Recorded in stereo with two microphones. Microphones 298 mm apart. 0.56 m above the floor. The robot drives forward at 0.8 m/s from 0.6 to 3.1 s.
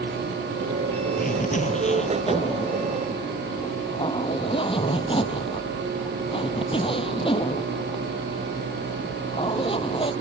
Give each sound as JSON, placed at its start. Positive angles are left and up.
{"t": 1.2, "sound": "a zipper", "side_deg": 25}